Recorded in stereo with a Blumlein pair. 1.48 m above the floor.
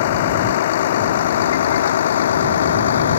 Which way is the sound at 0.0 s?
55° left.